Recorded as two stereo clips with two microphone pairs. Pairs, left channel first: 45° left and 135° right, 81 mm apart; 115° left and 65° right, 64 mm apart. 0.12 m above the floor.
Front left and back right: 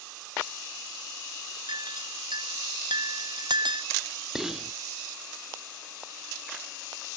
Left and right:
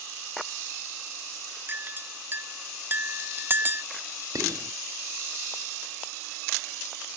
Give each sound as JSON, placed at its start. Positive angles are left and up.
{"t": 1.7, "sound": "a clink", "azimuth_deg": -120}
{"t": 4.3, "sound": "whispering", "azimuth_deg": -50}